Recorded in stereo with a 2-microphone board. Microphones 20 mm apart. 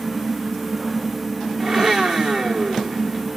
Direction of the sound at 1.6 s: 45° right (ahead or behind).